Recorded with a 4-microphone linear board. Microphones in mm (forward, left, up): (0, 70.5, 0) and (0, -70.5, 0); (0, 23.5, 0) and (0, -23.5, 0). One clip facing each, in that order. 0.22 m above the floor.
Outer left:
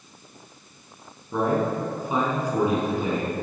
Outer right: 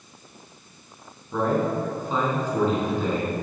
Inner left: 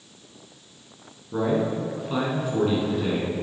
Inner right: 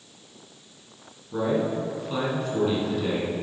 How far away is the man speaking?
About 2.5 m.